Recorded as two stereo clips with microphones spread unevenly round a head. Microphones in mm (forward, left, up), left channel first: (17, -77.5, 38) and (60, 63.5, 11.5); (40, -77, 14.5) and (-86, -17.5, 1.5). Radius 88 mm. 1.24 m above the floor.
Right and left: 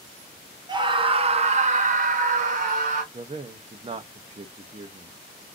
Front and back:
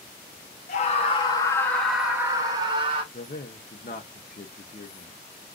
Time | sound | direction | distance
0.7 | a scream | 20° left | 0.9 m
3.1 | a man speaking | 25° left | 0.6 m